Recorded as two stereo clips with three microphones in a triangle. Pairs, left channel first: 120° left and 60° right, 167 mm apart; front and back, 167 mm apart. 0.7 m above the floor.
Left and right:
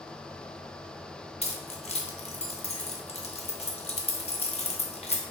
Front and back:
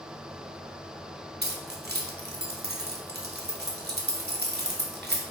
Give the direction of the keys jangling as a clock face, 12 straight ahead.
6 o'clock.